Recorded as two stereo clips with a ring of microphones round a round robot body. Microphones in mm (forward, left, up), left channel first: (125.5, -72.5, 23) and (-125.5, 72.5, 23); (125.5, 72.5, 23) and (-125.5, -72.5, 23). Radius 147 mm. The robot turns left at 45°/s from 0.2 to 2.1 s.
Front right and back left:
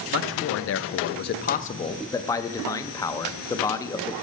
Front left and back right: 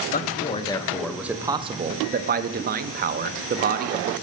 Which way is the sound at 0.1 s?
20° right.